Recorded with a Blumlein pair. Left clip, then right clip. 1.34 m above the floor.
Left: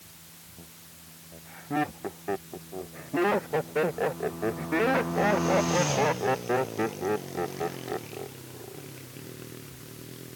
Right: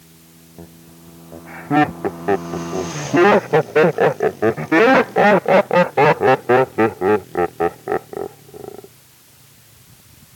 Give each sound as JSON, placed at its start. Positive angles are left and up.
{"t": 0.6, "sound": "laughter", "azimuth_deg": -55}